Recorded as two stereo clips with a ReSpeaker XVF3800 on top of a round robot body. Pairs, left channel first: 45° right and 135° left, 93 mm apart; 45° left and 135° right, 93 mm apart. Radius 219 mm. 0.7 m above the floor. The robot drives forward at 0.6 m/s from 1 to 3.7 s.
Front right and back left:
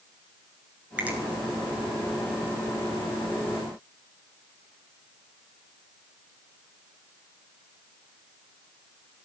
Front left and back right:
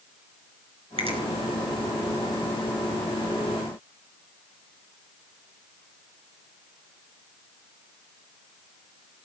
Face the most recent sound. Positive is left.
turn(degrees=-155)